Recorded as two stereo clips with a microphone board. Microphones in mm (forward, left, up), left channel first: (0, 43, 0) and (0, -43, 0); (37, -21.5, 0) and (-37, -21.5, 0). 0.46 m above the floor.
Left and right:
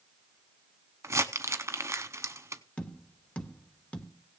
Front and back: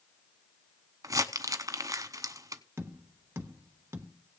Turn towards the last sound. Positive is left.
turn(degrees=155)